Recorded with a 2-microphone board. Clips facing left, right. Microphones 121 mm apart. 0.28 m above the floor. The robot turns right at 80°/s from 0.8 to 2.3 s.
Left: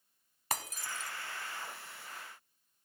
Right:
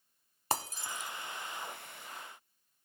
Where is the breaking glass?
30° right (ahead or behind), 0.6 m; by 1.1 s 5° right (ahead or behind), 0.6 m.